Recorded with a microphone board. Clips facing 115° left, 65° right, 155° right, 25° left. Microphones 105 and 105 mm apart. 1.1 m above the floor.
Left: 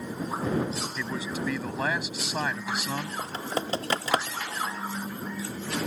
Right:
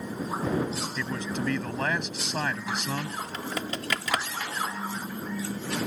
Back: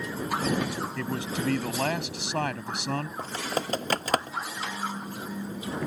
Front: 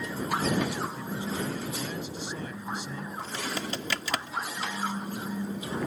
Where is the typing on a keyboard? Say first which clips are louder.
Left 2 dB, back 3 dB; 165° left.